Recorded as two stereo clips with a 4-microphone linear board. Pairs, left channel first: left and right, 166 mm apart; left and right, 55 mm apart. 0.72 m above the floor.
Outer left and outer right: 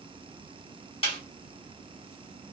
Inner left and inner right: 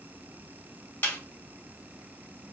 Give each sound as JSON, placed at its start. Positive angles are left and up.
{"t": 1.0, "sound": "a snare drum", "side_deg": 35, "distance_m": 1.6}